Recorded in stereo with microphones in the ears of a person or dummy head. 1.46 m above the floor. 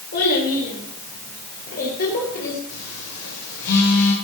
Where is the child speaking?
60° left (ahead or behind), 4 m; by 2.6 s 55° left (ahead or behind), 6 m.